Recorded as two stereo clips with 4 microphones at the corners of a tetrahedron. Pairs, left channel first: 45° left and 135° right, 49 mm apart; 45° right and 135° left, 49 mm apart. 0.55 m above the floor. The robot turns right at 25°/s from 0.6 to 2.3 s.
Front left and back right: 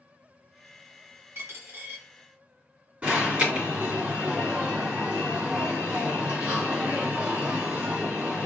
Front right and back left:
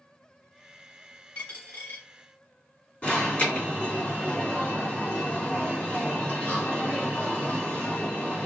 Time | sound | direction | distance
1.4 | a dropped coin | 110° right | 1.2 m
3.0 | an alarm | 90° right | 2 m